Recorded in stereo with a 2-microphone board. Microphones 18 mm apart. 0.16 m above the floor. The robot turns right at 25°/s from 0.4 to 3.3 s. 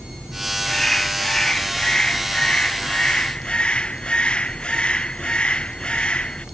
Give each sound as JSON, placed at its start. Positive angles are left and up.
{"t": 0.7, "sound": "a bird", "azimuth_deg": 20}